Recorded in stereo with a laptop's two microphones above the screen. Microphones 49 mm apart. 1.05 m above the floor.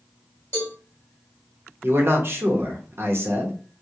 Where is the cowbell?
50° left (ahead or behind), 1.5 m.